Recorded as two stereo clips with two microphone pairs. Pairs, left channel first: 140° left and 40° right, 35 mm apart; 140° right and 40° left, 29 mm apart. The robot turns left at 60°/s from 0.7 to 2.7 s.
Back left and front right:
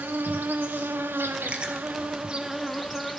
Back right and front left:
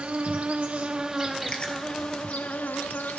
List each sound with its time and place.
0.0 s an insect: 10° right, 1.1 m; by 3.2 s 130° right, 1.1 m
1.5 s chewing: 85° right, 1.2 m; by 1.7 s 100° right, 1.2 m